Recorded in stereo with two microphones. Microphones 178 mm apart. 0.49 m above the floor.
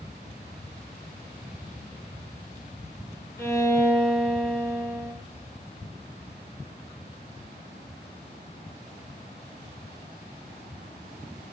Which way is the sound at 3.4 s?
15° left (ahead or behind).